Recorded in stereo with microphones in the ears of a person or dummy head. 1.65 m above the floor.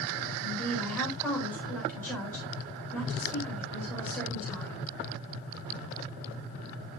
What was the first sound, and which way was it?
A woman speaking, 15° left (ahead or behind).